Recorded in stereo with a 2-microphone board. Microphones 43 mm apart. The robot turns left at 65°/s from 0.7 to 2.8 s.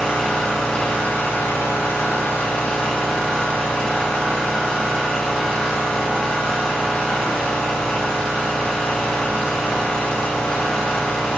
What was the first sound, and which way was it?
An engine running, 155° left.